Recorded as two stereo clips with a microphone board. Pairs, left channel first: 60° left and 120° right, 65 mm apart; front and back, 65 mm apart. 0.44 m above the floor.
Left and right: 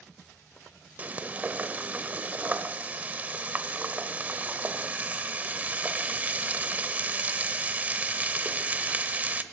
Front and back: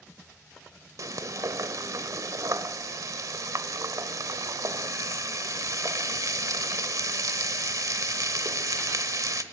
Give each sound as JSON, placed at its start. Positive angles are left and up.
{"t": 1.0, "sound": "frying", "azimuth_deg": 180, "distance_m": 1.1}